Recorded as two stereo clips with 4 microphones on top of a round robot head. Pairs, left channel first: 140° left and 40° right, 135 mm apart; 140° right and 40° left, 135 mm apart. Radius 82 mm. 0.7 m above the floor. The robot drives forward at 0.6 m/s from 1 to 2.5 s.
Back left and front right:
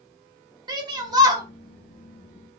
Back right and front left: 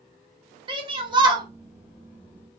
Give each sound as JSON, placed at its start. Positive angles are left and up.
{"t": 0.7, "sound": "a shout", "azimuth_deg": 5, "distance_m": 1.3}